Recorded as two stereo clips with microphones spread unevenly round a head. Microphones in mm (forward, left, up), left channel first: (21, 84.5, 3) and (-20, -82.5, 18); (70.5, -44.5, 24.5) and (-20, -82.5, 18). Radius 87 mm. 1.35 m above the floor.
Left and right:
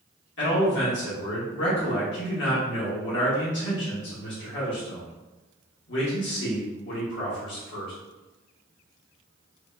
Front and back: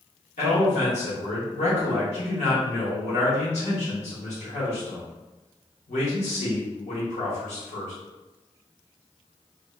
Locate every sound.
0.4 s a man speaking: 55° left, 1.5 m